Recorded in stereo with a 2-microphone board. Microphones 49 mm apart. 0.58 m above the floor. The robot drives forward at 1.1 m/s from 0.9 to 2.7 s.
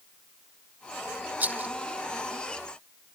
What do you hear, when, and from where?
1.4 s a rattle: 35° right (ahead or behind)